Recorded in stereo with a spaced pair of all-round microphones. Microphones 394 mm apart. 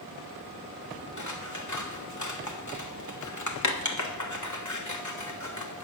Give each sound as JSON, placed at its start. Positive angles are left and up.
{"t": 1.2, "sound": "scissors", "side_deg": 50, "distance_m": 1.1}